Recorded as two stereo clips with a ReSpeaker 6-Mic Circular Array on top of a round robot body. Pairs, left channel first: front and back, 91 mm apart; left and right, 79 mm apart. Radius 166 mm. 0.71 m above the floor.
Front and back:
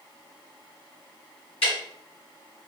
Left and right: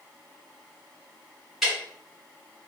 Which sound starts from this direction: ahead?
Ticking, at 1.6 s.